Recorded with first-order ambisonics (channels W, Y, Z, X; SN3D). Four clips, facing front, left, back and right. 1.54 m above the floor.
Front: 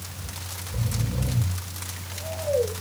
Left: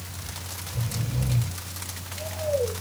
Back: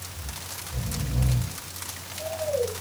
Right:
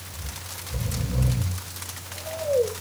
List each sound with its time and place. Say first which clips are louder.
0.1 s snoring: even, front 1 dB; 65° right, 8 m